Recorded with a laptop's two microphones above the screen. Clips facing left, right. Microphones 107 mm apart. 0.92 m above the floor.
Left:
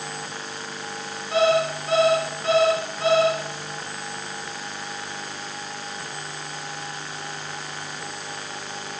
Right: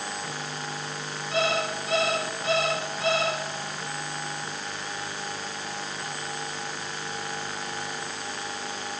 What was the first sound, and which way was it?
An alarm clock, 40° left (ahead or behind).